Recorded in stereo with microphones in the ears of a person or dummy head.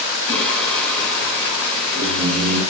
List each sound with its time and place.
0.3 s singing: 5° left (ahead or behind), 9.5 m